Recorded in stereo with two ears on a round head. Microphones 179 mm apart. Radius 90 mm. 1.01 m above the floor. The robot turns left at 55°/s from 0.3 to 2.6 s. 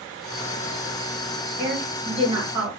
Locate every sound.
1.6 s a woman speaking: 155° right, 1.3 m; by 2.7 s 150° left, 1.3 m